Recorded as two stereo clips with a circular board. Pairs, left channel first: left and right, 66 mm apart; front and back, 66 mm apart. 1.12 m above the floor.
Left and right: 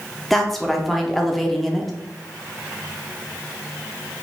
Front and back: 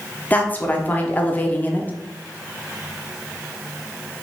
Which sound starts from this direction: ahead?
A woman speaking, at 0.3 s.